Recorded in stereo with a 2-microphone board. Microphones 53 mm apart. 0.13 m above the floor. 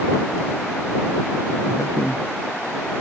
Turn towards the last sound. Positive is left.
turn(degrees=55)  # may be behind; listen again after turning